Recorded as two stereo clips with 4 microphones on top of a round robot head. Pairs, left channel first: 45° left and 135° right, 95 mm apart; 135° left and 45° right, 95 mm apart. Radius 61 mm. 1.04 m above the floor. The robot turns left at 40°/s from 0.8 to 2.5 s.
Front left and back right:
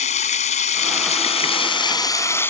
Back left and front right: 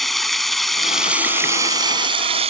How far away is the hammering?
I don't hear hammering.